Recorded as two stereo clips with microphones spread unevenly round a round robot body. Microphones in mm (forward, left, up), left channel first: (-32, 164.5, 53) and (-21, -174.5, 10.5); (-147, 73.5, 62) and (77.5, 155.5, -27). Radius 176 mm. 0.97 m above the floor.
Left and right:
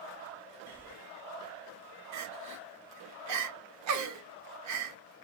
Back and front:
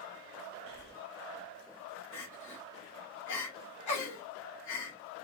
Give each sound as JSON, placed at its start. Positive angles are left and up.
{"t": 0.7, "sound": "breathing", "azimuth_deg": 0, "distance_m": 1.1}
{"t": 2.1, "sound": "crying", "azimuth_deg": -130, "distance_m": 1.0}